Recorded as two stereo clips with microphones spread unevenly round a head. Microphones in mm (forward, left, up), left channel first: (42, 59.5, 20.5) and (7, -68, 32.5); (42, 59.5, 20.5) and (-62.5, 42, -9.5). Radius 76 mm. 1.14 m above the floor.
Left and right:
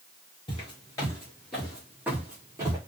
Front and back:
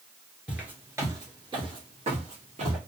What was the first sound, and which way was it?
Footsteps, 85° left.